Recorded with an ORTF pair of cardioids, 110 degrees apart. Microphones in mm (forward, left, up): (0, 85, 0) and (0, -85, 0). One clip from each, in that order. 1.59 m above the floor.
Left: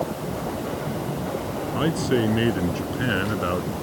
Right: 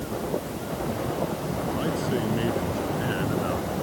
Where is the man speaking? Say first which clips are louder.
Left 7 dB; 50° left; by 3.7 s 45° left.